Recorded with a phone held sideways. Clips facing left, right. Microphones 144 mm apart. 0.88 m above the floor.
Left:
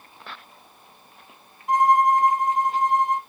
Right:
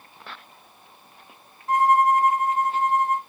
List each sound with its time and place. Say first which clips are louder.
1.7 s a violin: even; 15° left (ahead or behind), 0.8 m